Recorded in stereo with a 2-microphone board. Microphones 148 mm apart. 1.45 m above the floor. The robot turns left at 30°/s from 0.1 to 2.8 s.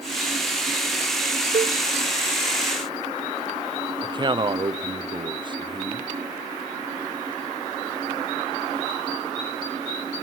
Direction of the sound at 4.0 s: 35° right (ahead or behind).